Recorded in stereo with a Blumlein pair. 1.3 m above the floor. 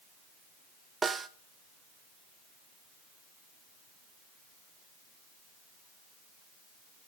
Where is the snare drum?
15° right, 0.8 m.